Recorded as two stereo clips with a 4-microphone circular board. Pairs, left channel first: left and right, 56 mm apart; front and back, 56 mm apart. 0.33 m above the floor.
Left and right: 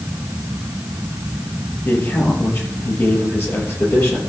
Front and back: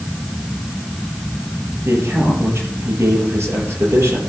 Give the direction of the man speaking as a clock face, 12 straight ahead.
7 o'clock.